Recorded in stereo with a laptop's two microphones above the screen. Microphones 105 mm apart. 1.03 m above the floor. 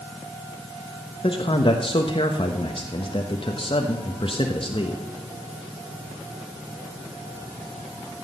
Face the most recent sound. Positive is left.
turn(degrees=55)  # may be behind; listen again after turning